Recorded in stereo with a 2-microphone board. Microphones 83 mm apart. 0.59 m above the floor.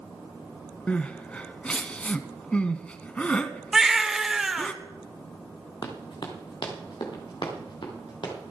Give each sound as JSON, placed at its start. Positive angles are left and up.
{"t": 0.9, "sound": "crying", "side_deg": 15, "distance_m": 1.1}
{"t": 3.7, "sound": "a baby crying", "side_deg": -5, "distance_m": 1.0}
{"t": 5.8, "sound": "running footsteps", "side_deg": 65, "distance_m": 3.0}